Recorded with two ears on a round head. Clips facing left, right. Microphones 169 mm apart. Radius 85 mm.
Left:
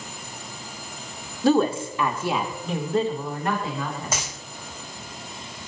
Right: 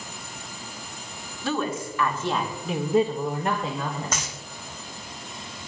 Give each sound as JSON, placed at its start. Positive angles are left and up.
{"t": 1.4, "sound": "a woman speaking", "side_deg": 35, "distance_m": 1.2}
{"t": 4.1, "sound": "a dropped coin", "side_deg": 10, "distance_m": 2.5}